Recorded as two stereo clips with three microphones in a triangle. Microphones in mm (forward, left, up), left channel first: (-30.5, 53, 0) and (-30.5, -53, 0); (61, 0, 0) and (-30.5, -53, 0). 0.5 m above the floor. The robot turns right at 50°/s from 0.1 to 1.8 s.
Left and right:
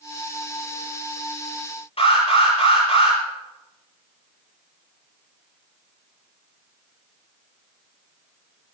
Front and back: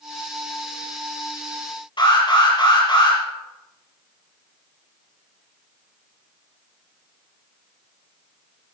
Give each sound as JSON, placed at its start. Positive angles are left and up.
{"t": 2.0, "sound": "an alarm", "azimuth_deg": 70, "distance_m": 7.5}